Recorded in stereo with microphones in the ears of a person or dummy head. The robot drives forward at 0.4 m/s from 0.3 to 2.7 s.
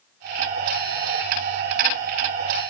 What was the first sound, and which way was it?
Only background noise.